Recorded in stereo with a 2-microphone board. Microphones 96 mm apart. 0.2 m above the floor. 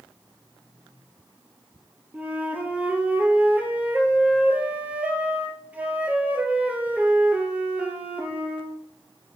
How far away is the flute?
About 2 m.